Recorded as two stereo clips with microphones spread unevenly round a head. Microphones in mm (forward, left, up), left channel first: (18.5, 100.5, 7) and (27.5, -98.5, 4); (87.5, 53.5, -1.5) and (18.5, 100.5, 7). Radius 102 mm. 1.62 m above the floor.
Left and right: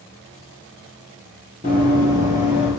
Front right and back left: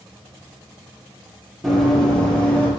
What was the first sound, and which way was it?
Running footsteps, 120° right.